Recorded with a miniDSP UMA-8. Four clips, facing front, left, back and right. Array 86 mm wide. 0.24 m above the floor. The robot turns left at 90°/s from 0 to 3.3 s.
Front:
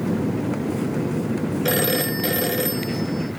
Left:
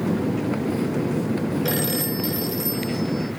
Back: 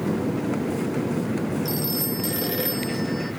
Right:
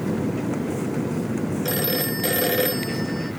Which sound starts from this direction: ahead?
A phone ringing, at 1.6 s.